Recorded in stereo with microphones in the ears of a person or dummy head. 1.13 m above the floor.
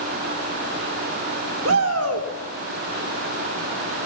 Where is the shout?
85° right, 3 m.